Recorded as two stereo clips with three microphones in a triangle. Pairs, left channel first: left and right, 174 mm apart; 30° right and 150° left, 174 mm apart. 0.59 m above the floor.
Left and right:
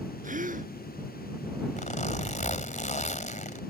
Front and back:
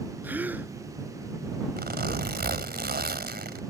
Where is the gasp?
130° right.